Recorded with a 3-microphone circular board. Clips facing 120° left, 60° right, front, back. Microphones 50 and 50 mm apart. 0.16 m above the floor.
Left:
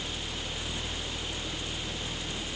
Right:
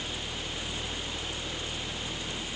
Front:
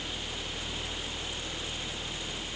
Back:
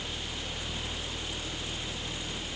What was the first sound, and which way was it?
Only background noise.